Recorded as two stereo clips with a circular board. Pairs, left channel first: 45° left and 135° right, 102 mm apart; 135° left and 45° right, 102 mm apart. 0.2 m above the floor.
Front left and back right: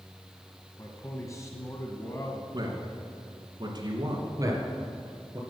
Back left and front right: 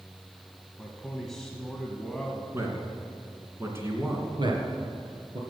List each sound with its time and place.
0.8 s a man speaking: 55° left, 1.2 m
2.5 s a man speaking: 105° right, 2 m
4.4 s a man speaking: 80° right, 2.5 m